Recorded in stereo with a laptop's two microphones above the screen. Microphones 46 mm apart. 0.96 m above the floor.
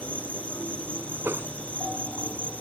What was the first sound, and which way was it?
An insect, 30° left (ahead or behind).